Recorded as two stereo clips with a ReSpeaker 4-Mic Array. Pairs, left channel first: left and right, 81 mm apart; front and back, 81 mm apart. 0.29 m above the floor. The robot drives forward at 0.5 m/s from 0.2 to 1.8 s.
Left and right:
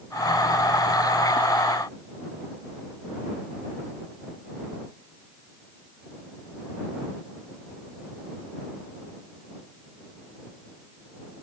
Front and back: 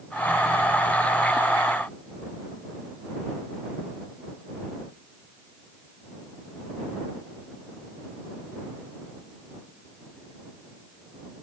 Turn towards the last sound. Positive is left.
No sound to turn to.